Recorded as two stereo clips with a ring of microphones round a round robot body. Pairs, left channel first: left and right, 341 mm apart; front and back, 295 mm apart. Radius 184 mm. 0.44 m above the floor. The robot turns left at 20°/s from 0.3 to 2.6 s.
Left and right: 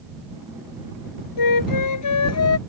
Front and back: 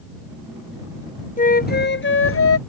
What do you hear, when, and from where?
1.4 s a flute: 65° left; by 2.6 s 40° left